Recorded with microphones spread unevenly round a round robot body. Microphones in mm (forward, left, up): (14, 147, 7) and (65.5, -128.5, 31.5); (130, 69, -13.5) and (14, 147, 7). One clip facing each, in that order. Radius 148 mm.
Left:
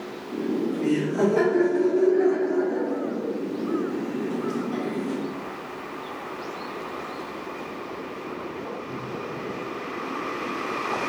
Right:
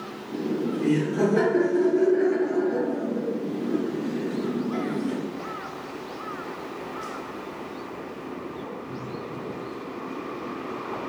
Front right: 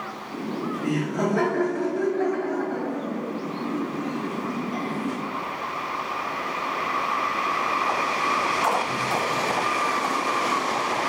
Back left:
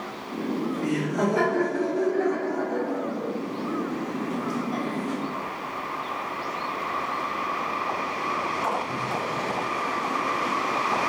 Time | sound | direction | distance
0.3 | laughter | 135° left | 1.0 m